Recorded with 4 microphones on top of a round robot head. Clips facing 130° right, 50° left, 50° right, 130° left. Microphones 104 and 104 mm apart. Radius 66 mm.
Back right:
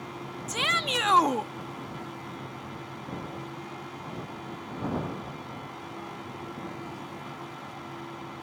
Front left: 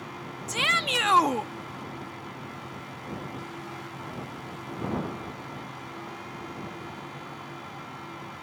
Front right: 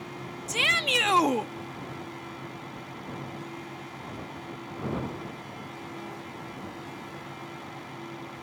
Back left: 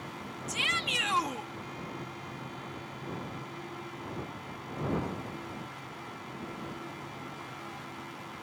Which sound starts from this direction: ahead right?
A shout, at 0.5 s.